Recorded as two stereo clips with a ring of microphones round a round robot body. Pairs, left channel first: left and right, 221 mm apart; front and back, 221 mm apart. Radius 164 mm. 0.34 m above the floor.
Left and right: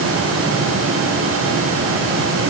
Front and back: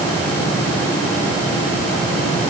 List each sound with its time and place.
Only background noise.